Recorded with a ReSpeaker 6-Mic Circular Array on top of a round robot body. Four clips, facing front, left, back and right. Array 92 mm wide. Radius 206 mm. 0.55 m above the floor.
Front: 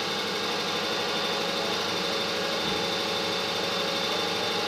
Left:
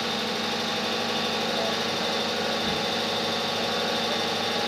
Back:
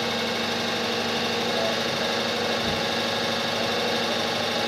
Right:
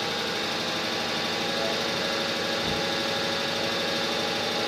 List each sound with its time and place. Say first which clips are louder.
0.0 s an engine running: left 1 dB, back 4 dB; straight behind, 1.5 m